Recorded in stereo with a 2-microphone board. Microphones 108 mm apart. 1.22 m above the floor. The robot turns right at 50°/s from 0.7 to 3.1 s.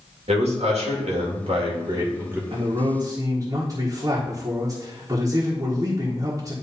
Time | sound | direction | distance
0.3 | a man speaking | 100° right | 2.0 m
2.5 | a man speaking | 65° right | 1.4 m